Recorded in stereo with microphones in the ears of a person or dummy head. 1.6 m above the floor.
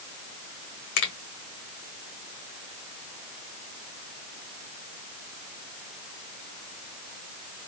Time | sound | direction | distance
1.0 | a finger snap | 60° left (ahead or behind) | 1.7 m